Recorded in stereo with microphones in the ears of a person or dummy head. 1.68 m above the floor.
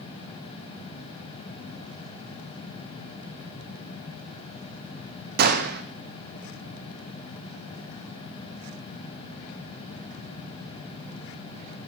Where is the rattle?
No rattle in this recording.